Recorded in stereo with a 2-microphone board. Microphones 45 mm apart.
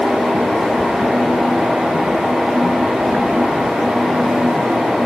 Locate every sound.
Only background noise.